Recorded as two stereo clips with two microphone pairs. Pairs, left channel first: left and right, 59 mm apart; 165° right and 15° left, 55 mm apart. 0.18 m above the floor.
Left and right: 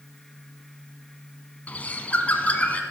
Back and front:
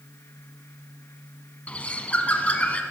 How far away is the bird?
About 0.8 m.